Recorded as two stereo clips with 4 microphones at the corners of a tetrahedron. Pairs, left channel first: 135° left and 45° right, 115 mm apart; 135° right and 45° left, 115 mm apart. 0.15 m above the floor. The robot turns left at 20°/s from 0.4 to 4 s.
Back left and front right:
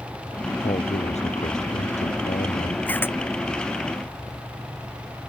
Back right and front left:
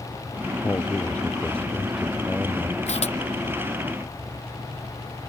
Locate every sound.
0.6 s a man speaking: 160° left; by 2.8 s 115° left
2.9 s a camera shutter: 150° right; by 3.1 s 155° right